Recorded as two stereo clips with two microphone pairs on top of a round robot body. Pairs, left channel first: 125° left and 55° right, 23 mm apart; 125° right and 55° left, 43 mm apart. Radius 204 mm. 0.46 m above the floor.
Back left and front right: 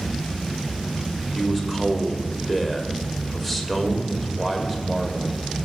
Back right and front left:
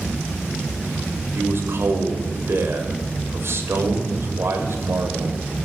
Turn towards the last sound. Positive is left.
turn(degrees=30)